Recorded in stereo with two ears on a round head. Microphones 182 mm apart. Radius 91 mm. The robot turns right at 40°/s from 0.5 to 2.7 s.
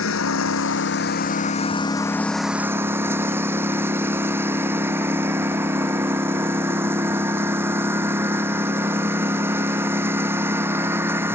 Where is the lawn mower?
105° left; by 11.3 s 170° right.